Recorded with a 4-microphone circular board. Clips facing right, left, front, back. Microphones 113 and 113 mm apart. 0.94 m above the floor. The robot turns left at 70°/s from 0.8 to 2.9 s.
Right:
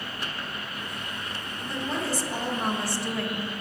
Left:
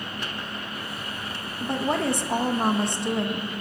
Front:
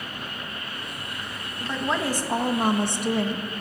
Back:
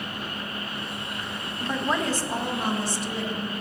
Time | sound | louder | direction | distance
1.6 | a woman speaking | left 6 dB, even | 115° left | 0.9 m